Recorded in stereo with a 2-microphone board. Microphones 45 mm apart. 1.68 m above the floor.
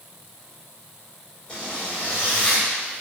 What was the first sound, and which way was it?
A zipper, 25° left (ahead or behind).